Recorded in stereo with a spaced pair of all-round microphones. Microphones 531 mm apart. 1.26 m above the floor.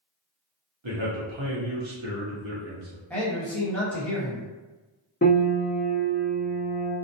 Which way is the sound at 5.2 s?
20° left (ahead or behind).